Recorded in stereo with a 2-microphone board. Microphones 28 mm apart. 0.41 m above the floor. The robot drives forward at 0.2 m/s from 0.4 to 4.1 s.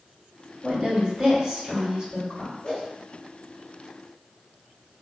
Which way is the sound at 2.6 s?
25° left (ahead or behind).